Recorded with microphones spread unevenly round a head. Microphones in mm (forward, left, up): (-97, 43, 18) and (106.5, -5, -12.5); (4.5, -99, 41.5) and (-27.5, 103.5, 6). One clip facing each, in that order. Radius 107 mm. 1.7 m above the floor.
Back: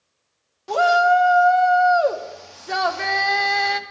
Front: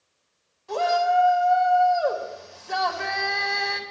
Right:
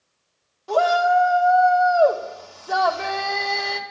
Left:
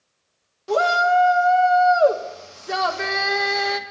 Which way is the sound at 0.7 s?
165° left.